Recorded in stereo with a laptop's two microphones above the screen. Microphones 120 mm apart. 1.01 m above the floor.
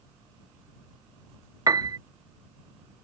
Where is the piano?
30° right (ahead or behind).